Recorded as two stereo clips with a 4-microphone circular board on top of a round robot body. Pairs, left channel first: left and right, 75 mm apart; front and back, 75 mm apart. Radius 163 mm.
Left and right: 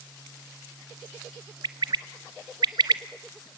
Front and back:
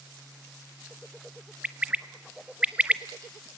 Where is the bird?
110° right, 0.9 m.